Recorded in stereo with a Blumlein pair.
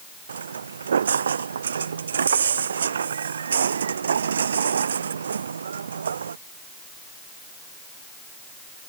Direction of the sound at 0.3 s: 70° right.